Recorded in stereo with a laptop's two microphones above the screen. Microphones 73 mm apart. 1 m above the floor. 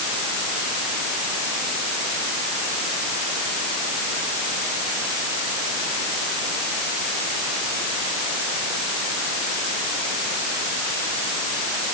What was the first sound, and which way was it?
Only background noise.